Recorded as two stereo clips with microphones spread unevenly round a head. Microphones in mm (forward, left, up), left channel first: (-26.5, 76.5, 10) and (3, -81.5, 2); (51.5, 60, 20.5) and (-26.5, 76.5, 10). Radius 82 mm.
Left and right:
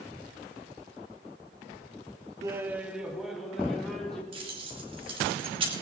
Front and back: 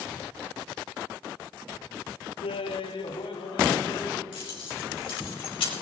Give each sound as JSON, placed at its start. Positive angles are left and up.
{"t": 2.4, "sound": "laughter", "azimuth_deg": -5, "distance_m": 0.7}
{"t": 4.3, "sound": "keys jangling", "azimuth_deg": -15, "distance_m": 3.0}